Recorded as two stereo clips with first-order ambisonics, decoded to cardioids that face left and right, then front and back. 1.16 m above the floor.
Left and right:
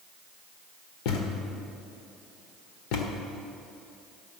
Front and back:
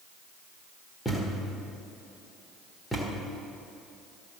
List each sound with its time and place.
1.1 s a thud: 85° left, 1.5 m